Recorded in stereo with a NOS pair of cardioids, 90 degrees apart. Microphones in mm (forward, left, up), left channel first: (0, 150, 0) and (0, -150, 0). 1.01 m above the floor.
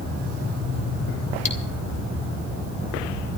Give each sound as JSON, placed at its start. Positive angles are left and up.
{"t": 1.4, "sound": "cutlery clinking", "azimuth_deg": 20, "distance_m": 3.5}